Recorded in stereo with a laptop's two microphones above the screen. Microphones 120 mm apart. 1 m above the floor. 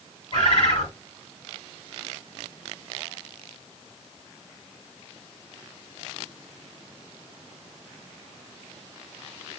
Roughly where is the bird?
Left.